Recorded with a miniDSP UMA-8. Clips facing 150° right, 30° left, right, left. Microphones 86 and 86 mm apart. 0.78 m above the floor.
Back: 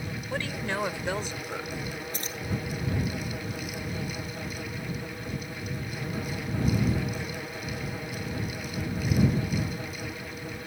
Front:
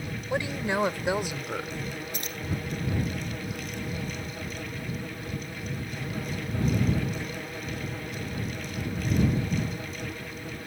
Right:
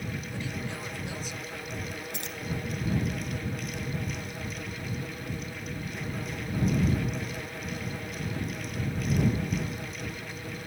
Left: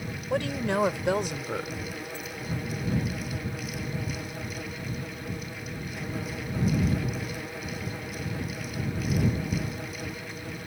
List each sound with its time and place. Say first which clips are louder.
0.3 s a woman speaking: front 4 dB, left 9 dB; 100° left; by 1.8 s 110° left
2.1 s keys jangling: even, left 1 dB; 90° right